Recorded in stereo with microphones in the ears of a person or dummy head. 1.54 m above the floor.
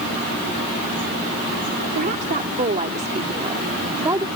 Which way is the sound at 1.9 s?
50° right (ahead or behind).